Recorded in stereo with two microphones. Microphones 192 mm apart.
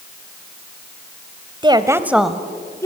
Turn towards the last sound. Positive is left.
turn(degrees=15)  # may be behind; listen again after turning